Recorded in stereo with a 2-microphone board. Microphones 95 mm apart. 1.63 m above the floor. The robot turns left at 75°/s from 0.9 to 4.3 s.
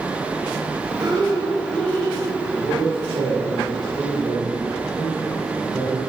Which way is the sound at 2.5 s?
35° right.